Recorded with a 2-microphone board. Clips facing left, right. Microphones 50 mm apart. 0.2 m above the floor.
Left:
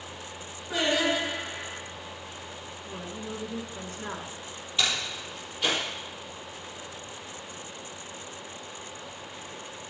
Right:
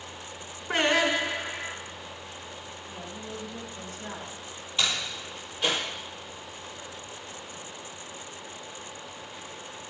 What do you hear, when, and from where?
0.7 s singing: 50° right (ahead or behind), 1.6 m
2.9 s a woman speaking: 50° left (ahead or behind), 2.5 m
4.8 s a door slam: centre (ahead or behind), 4.5 m